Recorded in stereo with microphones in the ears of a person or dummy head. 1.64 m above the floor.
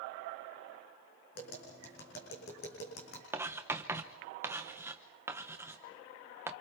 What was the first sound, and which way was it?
Tapping, 55° left (ahead or behind).